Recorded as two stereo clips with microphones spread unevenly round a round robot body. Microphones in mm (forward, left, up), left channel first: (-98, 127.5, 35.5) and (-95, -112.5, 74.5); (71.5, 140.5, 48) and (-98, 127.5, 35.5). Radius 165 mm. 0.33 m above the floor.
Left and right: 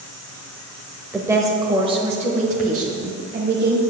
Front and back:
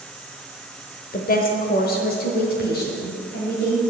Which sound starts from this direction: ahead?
A woman speaking, at 1.1 s.